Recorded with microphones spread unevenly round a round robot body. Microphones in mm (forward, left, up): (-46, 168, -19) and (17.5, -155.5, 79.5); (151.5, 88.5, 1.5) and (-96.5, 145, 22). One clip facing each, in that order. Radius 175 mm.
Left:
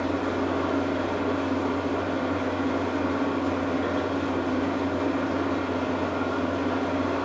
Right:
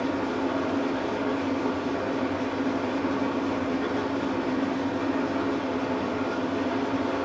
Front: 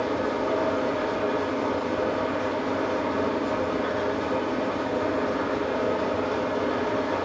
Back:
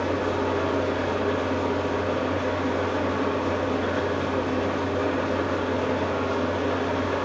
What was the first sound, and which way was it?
An engine running, 160° right.